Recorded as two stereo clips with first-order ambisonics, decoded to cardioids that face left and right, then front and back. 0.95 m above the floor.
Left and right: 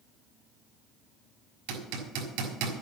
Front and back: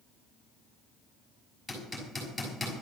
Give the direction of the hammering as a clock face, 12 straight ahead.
3 o'clock.